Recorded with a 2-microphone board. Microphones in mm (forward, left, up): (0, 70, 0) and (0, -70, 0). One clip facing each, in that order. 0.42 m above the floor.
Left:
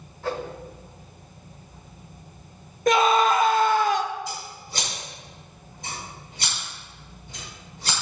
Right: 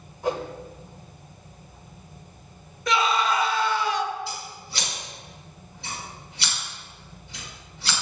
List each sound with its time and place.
0.2 s a whoosh: 15° right (ahead or behind), 1.1 m
2.9 s a scream: 45° left (ahead or behind), 1.0 m
4.3 s scissors: 40° left (ahead or behind), 5.5 m